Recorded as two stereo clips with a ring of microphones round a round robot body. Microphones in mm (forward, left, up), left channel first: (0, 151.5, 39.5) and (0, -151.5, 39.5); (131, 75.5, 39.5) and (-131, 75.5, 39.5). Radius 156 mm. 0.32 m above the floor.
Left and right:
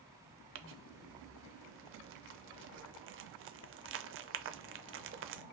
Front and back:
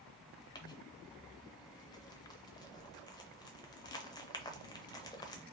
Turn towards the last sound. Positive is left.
turn(degrees=-70)